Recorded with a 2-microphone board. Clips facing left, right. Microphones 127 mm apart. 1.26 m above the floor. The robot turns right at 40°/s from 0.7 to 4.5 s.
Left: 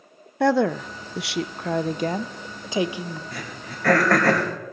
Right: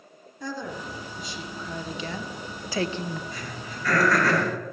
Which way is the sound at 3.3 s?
65° left (ahead or behind).